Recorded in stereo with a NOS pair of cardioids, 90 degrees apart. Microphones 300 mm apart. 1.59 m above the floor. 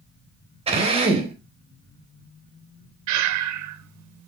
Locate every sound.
0.7 s a drill: 20° right, 4 m
3.1 s breathing: 65° right, 0.7 m